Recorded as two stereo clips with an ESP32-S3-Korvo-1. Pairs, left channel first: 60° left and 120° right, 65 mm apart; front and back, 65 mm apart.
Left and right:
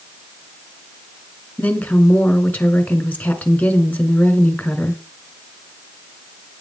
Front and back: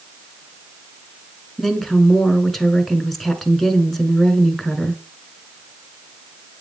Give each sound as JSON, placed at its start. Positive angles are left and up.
{"t": 1.6, "sound": "a woman speaking", "azimuth_deg": 85, "distance_m": 1.2}